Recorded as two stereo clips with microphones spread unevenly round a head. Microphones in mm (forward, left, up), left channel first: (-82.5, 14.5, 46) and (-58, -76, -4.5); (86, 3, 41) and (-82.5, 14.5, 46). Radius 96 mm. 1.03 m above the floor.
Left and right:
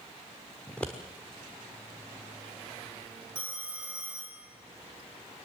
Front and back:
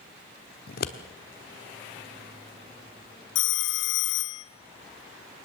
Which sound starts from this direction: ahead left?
Scissors, at 0.7 s.